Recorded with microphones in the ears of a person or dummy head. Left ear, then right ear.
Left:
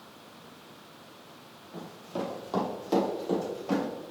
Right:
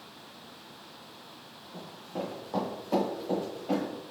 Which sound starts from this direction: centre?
Running footsteps, at 1.7 s.